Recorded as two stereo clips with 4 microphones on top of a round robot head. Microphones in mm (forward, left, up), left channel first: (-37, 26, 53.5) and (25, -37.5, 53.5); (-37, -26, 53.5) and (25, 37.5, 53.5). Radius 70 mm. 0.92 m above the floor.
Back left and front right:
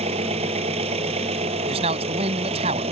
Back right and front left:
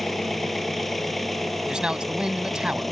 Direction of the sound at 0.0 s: 45° right.